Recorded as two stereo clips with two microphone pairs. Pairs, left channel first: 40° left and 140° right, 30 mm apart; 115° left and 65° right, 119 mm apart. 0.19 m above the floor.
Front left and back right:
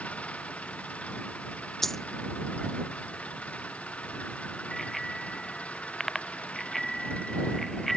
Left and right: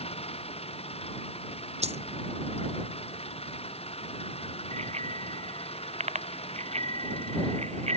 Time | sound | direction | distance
0.0 | an engine running | 80° left | ?
1.8 | a dropped coin | 40° right | ?
4.7 | a bicycle bell | 40° right | ?